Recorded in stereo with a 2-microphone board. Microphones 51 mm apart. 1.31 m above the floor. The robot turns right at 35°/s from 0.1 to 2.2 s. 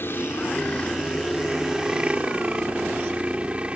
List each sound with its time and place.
0.0 s a helicopter: 130° left; by 3.8 s 155° right